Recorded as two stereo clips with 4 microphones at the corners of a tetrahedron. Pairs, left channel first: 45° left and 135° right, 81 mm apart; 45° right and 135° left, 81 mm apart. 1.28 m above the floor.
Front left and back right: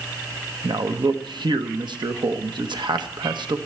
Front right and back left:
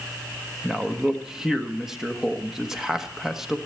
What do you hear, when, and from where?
0.6 s a man speaking: 140° right, 1.2 m